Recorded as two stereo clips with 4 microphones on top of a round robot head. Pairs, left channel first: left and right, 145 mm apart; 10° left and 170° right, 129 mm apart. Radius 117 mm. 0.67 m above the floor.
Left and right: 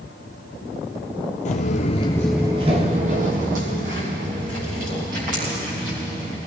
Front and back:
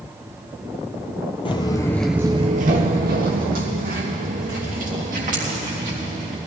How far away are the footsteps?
About 1.1 m.